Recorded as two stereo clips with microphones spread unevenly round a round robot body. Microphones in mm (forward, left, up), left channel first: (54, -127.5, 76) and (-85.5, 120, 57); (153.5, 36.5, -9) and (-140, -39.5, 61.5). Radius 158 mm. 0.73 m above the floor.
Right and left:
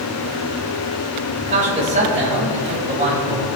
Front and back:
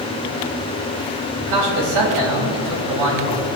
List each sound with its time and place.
1.4 s a man speaking: 170° right, 5 m